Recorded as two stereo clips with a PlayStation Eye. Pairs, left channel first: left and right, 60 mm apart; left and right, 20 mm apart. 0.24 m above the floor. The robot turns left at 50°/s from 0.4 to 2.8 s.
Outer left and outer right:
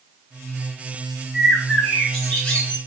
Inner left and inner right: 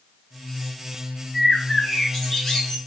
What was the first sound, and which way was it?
A bird, 160° right.